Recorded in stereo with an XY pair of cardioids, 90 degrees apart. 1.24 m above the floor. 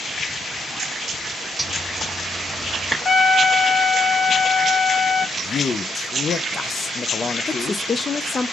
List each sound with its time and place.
1.6 s a zipper: 5° right, 1.5 m
3.0 s a trumpet: 30° left, 1.1 m
5.4 s a man speaking: 45° left, 0.5 m
7.5 s a woman speaking: 35° left, 0.7 m